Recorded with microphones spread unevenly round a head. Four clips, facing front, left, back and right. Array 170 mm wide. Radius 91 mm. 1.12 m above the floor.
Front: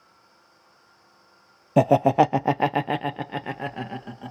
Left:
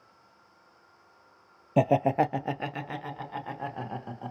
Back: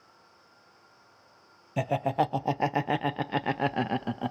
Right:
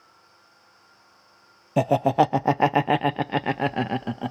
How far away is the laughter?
About 0.6 m.